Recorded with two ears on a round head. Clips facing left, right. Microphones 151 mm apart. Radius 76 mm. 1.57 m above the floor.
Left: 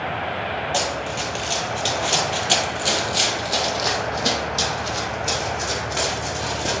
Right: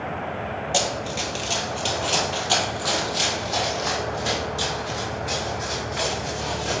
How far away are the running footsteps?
About 1.6 m.